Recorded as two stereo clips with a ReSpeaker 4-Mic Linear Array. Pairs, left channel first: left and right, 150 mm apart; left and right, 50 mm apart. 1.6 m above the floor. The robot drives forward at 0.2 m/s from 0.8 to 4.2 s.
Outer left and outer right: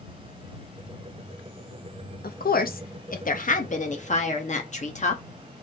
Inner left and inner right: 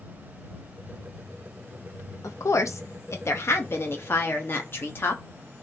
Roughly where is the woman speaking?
Left.